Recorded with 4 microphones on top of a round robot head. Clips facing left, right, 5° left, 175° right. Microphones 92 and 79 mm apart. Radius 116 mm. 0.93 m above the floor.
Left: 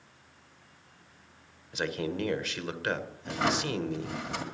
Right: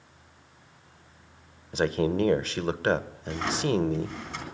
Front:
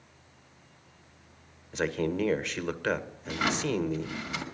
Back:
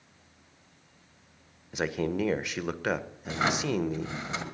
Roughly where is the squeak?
I don't hear a squeak.